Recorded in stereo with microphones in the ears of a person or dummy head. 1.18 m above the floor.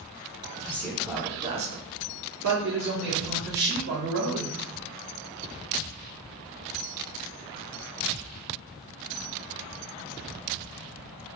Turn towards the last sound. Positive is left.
turn(degrees=-55)  # may be behind; listen again after turning